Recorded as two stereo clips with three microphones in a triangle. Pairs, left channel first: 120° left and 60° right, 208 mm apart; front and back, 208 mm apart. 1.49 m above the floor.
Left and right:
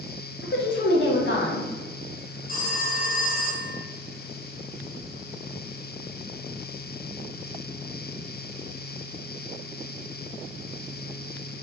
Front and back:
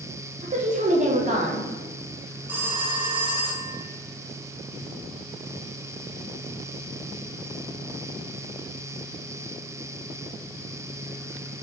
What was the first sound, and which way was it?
A woman speaking, 130° left.